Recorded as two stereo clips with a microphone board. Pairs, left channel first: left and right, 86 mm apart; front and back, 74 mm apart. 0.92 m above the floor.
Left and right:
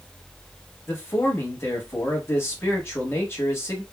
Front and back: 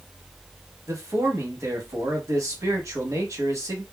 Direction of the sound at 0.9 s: 145° left.